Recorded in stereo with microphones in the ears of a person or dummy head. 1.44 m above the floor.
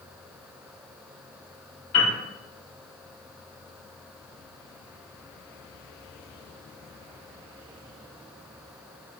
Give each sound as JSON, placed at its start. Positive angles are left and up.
{"t": 1.9, "sound": "a piano", "side_deg": 35, "distance_m": 1.9}